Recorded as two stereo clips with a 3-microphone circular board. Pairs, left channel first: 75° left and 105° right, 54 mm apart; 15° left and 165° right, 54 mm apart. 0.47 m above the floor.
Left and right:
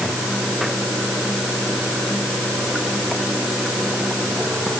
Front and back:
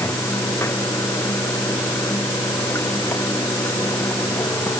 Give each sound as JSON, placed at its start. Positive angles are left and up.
{"t": 0.0, "sound": "running water", "azimuth_deg": -20}